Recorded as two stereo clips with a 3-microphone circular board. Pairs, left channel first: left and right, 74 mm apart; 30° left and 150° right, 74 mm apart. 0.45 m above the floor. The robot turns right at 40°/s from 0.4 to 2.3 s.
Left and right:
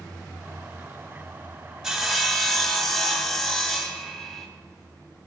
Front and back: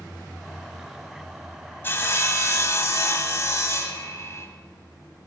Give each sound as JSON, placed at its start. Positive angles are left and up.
{"t": 1.8, "sound": "sawing", "azimuth_deg": -5, "distance_m": 0.9}